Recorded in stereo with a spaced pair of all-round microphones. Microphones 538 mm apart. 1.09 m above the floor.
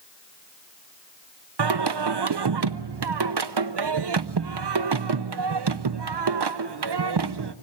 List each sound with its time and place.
1.6 s singing: 50° right (ahead or behind), 0.5 m